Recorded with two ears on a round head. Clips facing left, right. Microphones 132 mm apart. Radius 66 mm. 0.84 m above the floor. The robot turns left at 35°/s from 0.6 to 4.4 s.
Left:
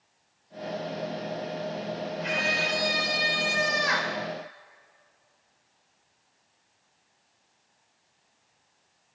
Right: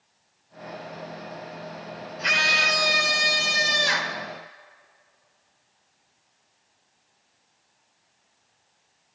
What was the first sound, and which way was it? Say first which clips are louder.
A scream: right 5 dB; 85° right.